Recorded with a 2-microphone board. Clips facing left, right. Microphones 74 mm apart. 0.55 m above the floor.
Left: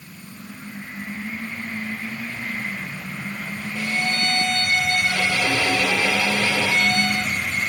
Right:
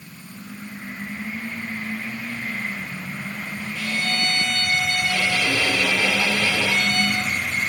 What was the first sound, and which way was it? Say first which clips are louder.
A violin: left 2 dB; 20° left (ahead or behind).